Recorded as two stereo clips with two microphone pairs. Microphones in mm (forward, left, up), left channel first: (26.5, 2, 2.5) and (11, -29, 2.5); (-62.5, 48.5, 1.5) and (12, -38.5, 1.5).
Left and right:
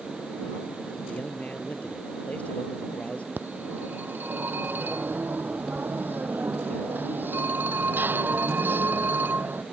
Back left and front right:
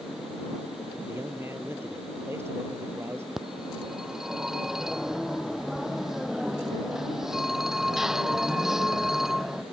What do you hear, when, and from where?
1.1 s a man speaking: 20° left
3.4 s a phone ringing: 135° right